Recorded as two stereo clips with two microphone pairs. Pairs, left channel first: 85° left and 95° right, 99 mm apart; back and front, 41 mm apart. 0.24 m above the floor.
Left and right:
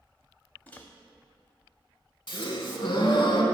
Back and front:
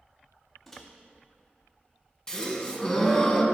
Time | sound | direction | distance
0.7 | a microwave | 125° left | 0.7 m
2.3 | a gasp | 110° left | 0.7 m